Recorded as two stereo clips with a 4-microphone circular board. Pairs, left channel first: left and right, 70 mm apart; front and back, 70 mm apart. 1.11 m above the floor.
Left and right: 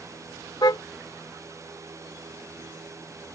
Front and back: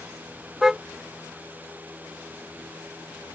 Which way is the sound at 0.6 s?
95° left.